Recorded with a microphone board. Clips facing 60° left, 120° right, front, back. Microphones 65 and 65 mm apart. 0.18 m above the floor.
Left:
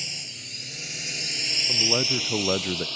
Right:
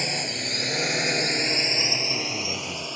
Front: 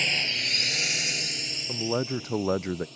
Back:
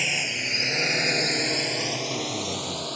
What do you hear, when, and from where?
0.0 s a drone: 100° right; by 3.0 s 170° left
1.7 s a man speaking: 25° left